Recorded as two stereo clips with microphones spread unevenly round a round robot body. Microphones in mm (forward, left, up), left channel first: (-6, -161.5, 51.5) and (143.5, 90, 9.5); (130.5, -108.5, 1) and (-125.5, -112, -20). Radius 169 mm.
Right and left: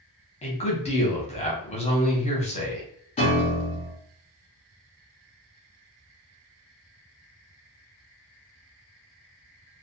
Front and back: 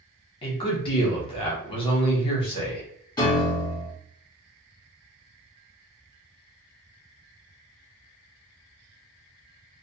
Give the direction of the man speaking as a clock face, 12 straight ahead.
2 o'clock.